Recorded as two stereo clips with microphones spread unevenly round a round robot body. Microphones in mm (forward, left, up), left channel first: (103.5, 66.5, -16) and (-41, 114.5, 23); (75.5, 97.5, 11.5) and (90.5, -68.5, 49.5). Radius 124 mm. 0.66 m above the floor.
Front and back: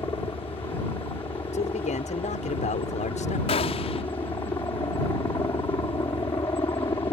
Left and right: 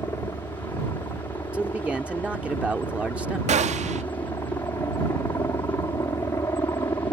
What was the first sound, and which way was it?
A helicopter, 35° left.